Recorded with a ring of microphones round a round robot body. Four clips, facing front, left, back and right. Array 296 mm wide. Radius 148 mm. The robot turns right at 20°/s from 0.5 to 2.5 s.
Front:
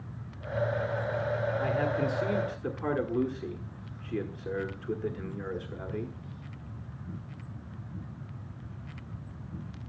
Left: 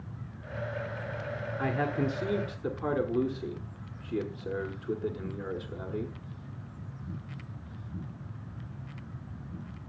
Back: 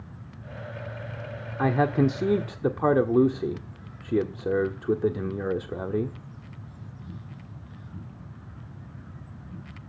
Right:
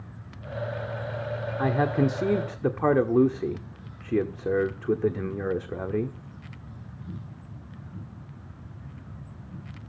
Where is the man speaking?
155° right, 1.4 m; by 6.2 s 140° right, 1.4 m.